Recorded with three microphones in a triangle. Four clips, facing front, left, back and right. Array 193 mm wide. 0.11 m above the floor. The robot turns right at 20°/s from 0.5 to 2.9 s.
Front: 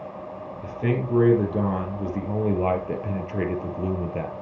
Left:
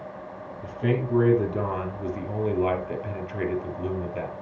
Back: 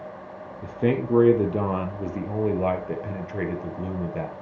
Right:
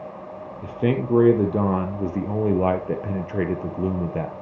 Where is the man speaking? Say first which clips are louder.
Right 3 dB, back 3 dB; 125° right, 2.5 m; by 4.3 s 80° right, 2.5 m.